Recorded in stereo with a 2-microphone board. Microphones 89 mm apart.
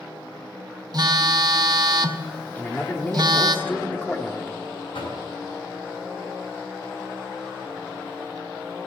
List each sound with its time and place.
0.9 s a phone buzzing: 50° right (ahead or behind), 0.7 m
2.5 s a man speaking: 15° left (ahead or behind), 1.3 m
4.9 s knocking: 65° left (ahead or behind), 6 m